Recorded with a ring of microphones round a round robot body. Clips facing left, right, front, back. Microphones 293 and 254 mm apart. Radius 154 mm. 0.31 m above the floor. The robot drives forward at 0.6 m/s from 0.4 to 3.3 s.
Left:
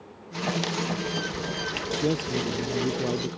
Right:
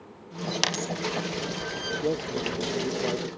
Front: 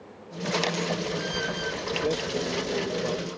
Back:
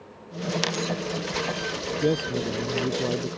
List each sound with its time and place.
0.6 s a dropped coin: 100° right
2.0 s a man speaking: 140° left; by 3.4 s 145° left